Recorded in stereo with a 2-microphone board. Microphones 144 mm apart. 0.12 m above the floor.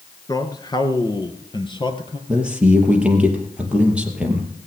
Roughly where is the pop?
I don't hear a pop.